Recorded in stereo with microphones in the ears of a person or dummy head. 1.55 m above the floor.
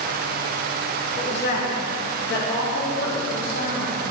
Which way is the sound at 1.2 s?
60° left (ahead or behind).